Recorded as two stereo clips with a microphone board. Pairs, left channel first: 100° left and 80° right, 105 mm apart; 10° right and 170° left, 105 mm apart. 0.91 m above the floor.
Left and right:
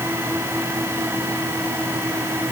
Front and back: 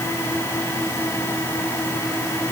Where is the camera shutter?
No camera shutter in this recording.